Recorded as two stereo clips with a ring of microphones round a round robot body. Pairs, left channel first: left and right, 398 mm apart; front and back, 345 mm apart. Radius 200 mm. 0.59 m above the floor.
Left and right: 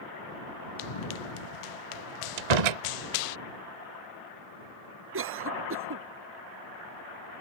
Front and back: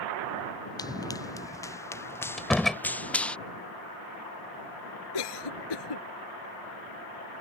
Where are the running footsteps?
80° left; by 3.4 s 85° left.